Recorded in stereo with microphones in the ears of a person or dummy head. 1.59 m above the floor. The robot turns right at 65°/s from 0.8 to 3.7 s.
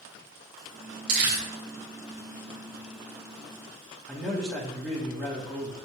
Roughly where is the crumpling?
Right.